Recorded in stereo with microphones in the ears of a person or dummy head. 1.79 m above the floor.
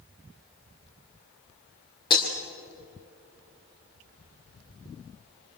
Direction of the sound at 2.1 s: 25° left (ahead or behind).